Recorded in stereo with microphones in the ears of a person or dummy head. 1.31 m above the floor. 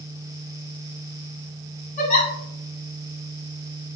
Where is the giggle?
45° left (ahead or behind), 3 m.